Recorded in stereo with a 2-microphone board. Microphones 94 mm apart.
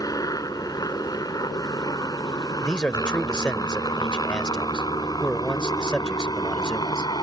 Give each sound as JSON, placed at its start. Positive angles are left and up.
{"t": 0.0, "sound": "a helicopter", "side_deg": 40}
{"t": 2.6, "sound": "a man speaking", "side_deg": 10}